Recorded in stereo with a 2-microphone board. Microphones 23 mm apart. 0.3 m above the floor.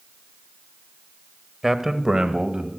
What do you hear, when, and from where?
1.6 s a man speaking: 10° right (ahead or behind), 1.1 m; by 2.7 s 45° right (ahead or behind), 1.7 m